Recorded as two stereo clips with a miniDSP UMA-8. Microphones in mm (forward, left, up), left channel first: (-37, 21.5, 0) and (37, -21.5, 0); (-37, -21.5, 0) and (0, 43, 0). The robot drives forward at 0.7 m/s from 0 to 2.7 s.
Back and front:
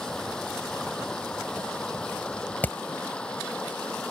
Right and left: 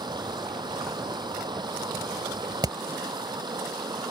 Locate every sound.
0.0 s running water: 65° left; by 4.1 s 70° left
2.6 s hammering: 80° left